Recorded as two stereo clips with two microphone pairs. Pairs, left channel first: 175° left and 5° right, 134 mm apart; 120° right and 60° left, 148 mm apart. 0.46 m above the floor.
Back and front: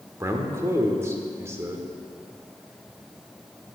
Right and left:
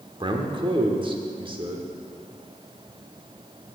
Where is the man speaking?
45° left, 0.9 m.